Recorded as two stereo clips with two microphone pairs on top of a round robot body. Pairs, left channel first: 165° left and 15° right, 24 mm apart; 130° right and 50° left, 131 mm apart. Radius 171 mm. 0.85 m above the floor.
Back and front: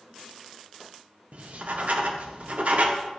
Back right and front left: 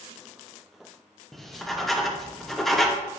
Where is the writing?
40° right, 1.1 m.